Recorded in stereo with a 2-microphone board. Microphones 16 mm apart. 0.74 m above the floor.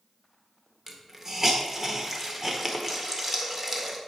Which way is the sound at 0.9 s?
20° right (ahead or behind).